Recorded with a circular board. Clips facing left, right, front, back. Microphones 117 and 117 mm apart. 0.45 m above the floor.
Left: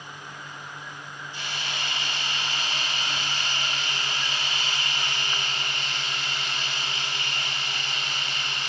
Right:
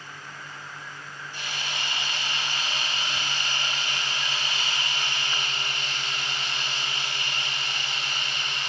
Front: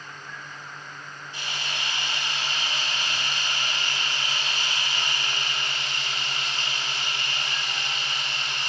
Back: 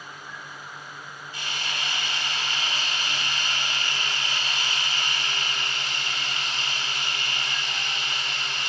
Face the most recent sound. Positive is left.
turn(degrees=-60)